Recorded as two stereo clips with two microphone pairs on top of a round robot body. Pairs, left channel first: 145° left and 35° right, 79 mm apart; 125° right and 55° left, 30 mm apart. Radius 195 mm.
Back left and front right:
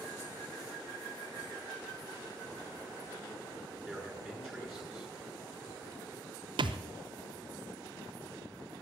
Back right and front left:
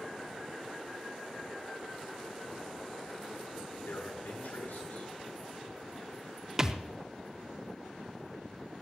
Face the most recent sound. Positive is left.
turn(degrees=-15)